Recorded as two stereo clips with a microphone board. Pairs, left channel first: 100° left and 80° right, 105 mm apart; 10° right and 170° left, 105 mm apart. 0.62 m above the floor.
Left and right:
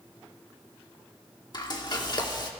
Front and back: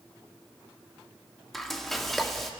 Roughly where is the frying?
Left.